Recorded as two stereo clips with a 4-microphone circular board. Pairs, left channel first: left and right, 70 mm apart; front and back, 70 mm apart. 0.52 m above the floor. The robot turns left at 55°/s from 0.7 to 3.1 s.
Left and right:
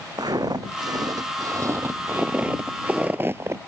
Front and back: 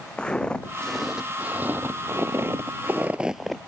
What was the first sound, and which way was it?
Footsteps, 80° right.